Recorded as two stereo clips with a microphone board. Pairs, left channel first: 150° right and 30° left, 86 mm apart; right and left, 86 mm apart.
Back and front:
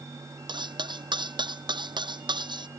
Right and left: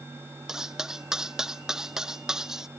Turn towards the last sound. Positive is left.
turn(degrees=5)